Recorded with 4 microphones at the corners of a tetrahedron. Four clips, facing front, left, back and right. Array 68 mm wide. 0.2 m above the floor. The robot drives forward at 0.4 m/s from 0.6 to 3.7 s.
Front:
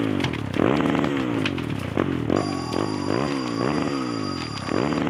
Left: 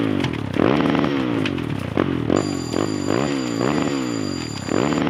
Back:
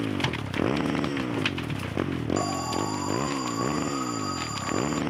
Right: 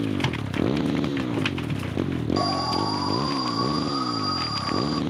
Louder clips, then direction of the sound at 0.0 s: Left 5 dB, front 4 dB; 65° left.